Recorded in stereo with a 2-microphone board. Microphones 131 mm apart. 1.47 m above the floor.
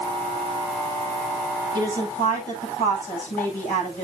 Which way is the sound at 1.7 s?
80° left.